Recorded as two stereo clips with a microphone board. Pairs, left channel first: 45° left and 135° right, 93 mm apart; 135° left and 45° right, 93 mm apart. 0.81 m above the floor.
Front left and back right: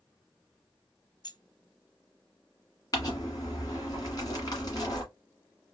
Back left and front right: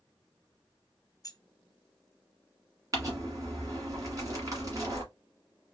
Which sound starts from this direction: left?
Keys jangling, at 1.2 s.